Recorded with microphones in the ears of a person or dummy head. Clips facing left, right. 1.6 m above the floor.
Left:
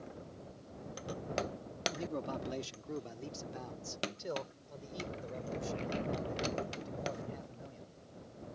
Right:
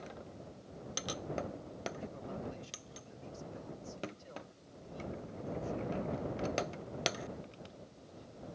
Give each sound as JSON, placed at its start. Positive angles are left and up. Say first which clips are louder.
{"t": 1.9, "sound": "a man speaking", "louder": "left 5 dB", "side_deg": 85}